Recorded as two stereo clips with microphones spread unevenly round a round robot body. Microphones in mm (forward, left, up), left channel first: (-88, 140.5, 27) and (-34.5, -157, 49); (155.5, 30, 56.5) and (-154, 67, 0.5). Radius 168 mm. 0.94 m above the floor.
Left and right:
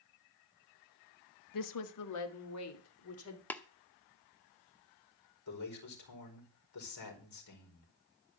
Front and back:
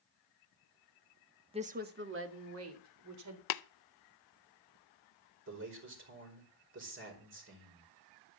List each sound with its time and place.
1.5 s a woman speaking: 105° left, 1.3 m; by 3.4 s 140° left, 3 m
3.5 s tapping: 20° left, 0.6 m
5.5 s a man speaking: 125° left, 4.5 m